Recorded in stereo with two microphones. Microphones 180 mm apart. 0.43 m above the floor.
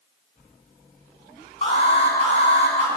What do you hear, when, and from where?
1.6 s an alarm: 35° left (ahead or behind), 5.5 m